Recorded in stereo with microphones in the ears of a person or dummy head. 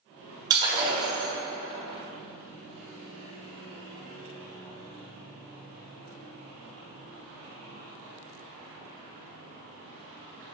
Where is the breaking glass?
25° right (ahead or behind), 1.9 m.